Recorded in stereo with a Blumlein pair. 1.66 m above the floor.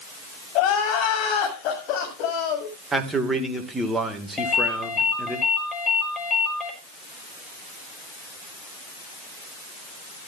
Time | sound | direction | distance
0.6 | crying | 40° left | 7 m
2.9 | a man speaking | 10° right | 2.5 m
4.4 | a ringtone | 20° left | 6 m